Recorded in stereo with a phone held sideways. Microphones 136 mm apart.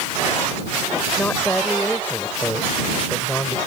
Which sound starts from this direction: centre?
A woman speaking, at 1.2 s.